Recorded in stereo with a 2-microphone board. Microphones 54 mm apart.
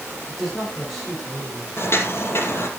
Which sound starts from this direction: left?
Footsteps, at 1.8 s.